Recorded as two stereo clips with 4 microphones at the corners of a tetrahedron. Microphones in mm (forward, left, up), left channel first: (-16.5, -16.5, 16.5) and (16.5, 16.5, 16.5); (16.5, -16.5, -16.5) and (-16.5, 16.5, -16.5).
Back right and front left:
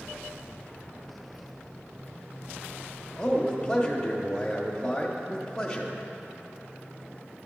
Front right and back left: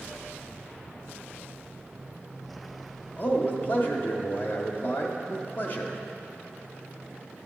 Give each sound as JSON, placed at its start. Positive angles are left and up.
{"t": 3.2, "sound": "a man speaking", "azimuth_deg": -65, "distance_m": 1.0}